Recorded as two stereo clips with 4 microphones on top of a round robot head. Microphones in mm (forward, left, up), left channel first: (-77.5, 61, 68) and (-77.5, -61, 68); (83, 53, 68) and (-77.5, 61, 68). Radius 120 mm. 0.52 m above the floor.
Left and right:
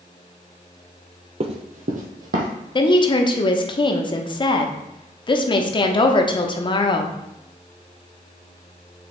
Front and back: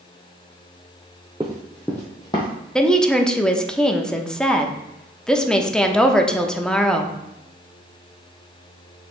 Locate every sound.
1.4 s running footsteps: 115° right, 0.7 m; by 2.5 s 70° right, 1.2 m
2.8 s a woman speaking: 80° left, 0.9 m